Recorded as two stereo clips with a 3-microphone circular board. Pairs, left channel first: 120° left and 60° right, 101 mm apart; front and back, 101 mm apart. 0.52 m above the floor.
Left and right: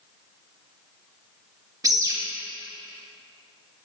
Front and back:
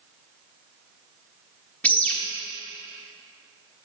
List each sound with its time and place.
1.8 s a bird: 65° right, 0.9 m